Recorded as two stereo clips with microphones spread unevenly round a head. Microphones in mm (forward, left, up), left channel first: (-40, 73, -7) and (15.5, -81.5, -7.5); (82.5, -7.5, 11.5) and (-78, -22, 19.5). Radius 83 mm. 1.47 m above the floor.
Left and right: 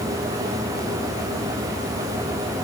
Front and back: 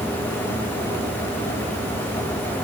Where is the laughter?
I don't hear laughter.